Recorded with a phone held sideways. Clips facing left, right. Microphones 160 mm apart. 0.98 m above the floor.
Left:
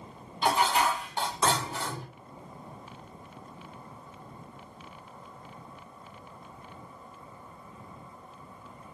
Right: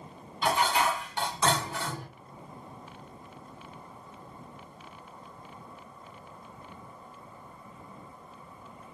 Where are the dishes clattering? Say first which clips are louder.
Left 1 dB; 30° left (ahead or behind), 1.4 m.